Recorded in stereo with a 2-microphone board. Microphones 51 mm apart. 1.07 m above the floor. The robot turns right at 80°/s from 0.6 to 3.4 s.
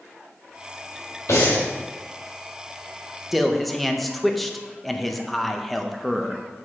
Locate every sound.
1.3 s breathing: 90° left, 3 m; by 1.6 s 65° left (ahead or behind), 3 m
3.3 s a man speaking: 5° right (ahead or behind), 0.6 m; by 6.4 s centre (ahead or behind), 0.6 m